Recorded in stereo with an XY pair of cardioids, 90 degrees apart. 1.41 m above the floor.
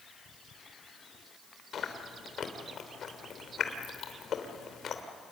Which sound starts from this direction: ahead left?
Chewing, at 1.7 s.